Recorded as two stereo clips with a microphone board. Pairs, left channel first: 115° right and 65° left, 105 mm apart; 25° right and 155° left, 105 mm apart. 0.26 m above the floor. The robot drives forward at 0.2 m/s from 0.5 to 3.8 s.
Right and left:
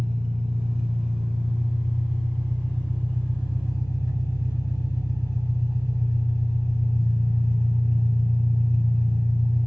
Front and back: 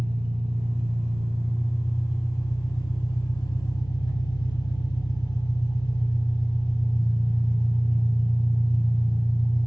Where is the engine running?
25° right, 1.0 m; by 9.7 s 60° right, 0.5 m.